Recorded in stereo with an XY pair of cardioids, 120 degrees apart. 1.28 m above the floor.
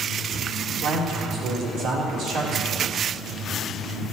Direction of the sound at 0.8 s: 65° right.